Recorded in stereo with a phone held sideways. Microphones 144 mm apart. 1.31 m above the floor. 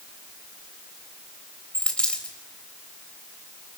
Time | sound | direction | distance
1.7 | a dropped coin | 5° left (ahead or behind) | 3 m